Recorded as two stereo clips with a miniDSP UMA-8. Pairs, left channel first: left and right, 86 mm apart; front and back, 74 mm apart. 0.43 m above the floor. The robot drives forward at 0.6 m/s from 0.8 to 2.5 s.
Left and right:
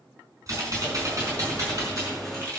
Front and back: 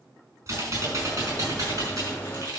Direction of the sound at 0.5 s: 140° right.